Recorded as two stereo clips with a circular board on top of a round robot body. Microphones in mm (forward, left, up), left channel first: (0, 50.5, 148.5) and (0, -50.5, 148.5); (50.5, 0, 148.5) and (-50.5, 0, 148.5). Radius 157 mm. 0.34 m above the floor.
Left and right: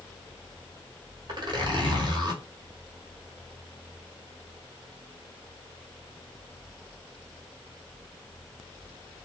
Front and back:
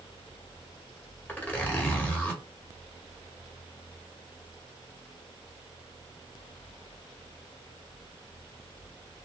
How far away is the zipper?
About 1.6 m.